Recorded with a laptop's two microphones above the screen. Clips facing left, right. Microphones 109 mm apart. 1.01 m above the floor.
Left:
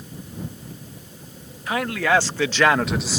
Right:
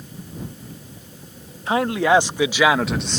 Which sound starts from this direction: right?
A man speaking, at 1.7 s.